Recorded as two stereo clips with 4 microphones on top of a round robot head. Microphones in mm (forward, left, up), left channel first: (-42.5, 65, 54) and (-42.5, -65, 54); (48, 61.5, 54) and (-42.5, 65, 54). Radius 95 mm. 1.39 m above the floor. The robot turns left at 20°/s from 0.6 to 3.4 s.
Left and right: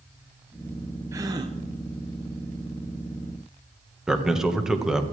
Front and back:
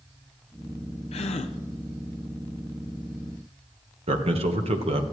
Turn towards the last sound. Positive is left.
turn(degrees=-175)